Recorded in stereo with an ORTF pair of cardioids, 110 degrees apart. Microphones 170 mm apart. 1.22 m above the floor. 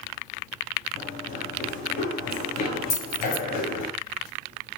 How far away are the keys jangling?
About 8.5 m.